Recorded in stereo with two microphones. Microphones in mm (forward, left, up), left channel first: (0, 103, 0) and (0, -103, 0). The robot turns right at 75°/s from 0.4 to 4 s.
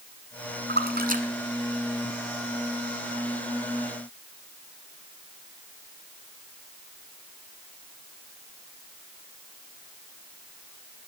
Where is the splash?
55° right (ahead or behind), 1.4 m; by 2.5 s 35° left (ahead or behind), 1.4 m.